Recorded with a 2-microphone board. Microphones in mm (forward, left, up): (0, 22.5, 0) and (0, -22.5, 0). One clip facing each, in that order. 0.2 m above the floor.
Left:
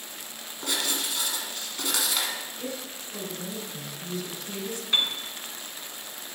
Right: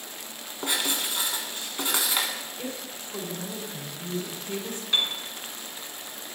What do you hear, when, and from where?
0.6 s writing: 25° right (ahead or behind), 1.4 m
2.6 s a woman speaking: 35° right (ahead or behind), 1.9 m
4.9 s a piano: 15° left (ahead or behind), 2.0 m